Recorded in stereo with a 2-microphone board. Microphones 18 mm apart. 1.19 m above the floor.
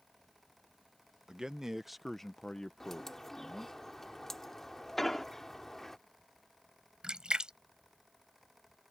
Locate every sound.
1.3 s a man speaking: 40° right (ahead or behind); by 3.8 s 65° left (ahead or behind)
2.8 s a bird: 15° left (ahead or behind)
5.0 s an explosion: 10° left (ahead or behind)
7.0 s a splash: 50° right (ahead or behind)